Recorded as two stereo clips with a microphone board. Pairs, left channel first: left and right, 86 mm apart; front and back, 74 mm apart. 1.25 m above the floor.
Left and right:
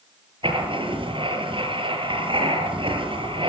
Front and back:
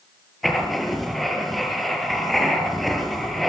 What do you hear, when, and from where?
0.4 s writing: 90° right, 5.5 m